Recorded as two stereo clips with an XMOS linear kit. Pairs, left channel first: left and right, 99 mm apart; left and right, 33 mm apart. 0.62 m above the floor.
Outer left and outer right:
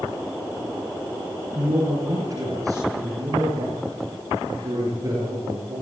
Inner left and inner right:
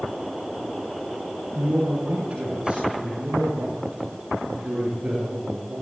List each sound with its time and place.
1.6 s a man speaking: 40° right (ahead or behind), 7 m; by 5.8 s 35° right (ahead or behind), 11 m